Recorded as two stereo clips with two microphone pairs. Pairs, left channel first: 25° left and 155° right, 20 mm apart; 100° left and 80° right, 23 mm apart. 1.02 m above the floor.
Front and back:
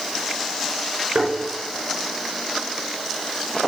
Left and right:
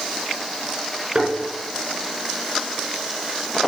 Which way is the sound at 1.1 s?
135° right.